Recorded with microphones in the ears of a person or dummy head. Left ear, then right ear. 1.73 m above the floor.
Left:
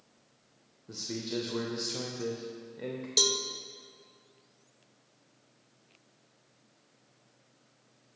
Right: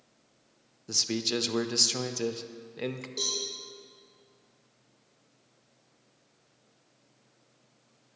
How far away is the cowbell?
About 1.2 m.